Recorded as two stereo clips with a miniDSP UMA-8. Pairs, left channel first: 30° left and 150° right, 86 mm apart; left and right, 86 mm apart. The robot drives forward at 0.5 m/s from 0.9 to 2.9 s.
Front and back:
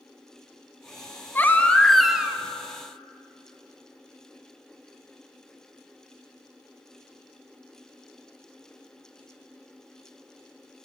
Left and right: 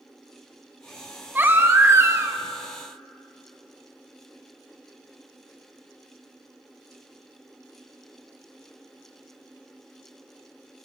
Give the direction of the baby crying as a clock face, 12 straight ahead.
1 o'clock.